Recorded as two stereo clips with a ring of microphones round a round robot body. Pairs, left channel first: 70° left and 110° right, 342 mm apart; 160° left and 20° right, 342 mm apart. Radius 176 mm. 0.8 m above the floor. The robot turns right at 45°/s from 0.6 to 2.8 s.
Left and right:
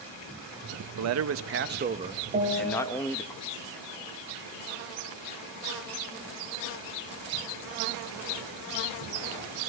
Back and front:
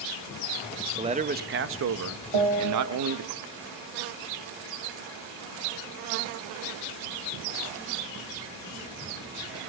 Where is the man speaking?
95° right, 0.8 m; by 3.3 s 10° right, 0.8 m.